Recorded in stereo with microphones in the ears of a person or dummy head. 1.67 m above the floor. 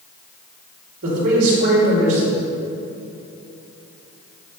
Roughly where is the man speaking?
Right.